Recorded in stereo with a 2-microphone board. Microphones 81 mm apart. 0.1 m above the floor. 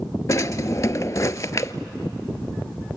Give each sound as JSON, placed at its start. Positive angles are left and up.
{"t": 0.3, "sound": "a drawer", "side_deg": 40, "distance_m": 0.6}